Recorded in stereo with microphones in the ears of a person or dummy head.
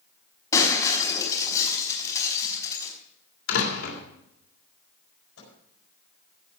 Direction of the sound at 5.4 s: 90° left.